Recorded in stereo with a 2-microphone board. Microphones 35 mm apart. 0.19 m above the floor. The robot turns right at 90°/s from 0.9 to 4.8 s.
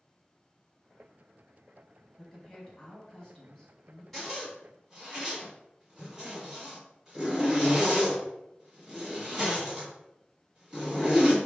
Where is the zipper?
5° left (ahead or behind), 1.3 m; by 11.4 s 20° right (ahead or behind), 1.3 m.